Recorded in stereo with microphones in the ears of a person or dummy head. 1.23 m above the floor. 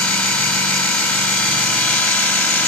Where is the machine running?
10° left (ahead or behind), 0.9 m.